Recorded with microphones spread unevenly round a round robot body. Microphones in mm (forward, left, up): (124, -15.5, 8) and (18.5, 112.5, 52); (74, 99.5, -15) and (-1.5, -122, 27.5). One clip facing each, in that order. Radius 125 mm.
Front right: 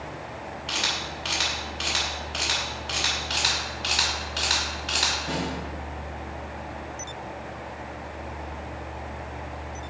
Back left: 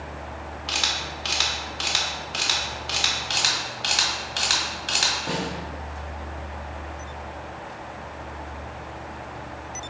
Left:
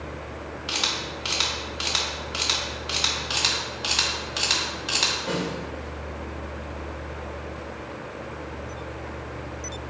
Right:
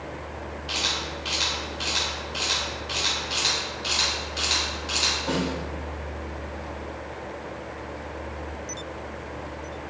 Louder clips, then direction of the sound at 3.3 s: Even, even; 100° left.